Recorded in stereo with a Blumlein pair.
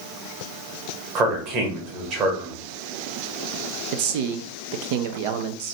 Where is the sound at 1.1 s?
30° right, 1.7 m.